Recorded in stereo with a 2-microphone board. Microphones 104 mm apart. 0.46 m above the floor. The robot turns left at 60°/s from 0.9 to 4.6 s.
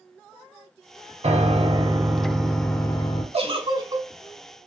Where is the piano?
105° right, 0.6 m; by 3.2 s 135° left, 0.6 m.